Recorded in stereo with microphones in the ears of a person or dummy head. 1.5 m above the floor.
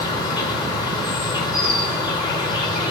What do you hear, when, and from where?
0.0 s an insect: 25° left (ahead or behind), 1.1 m